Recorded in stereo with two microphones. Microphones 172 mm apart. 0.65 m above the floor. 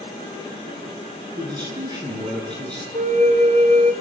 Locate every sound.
1.4 s a man speaking: 25° right (ahead or behind), 9.5 m
2.9 s a flute: 45° right (ahead or behind), 1.7 m